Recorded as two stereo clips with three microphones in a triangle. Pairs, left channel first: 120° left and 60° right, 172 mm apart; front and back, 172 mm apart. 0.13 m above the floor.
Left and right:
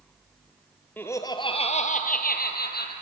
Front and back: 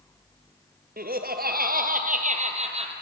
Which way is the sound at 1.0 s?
160° right.